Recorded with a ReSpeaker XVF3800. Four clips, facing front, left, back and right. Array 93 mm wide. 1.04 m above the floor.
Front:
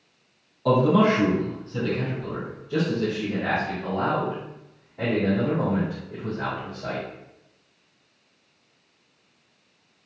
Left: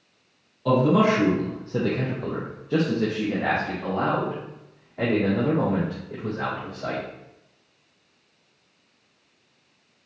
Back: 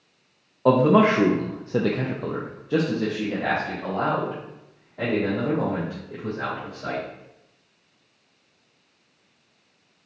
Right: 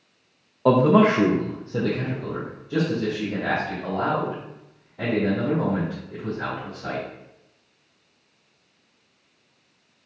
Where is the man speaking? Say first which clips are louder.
Right 3 dB, back 2 dB; 125° right, 0.7 m; by 7.0 s 110° left, 3 m.